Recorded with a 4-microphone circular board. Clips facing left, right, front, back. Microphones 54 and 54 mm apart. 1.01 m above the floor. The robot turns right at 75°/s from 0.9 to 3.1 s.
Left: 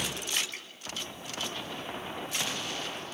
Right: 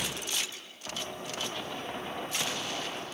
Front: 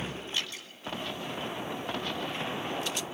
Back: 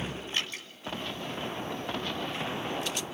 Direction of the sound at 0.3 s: 130° left.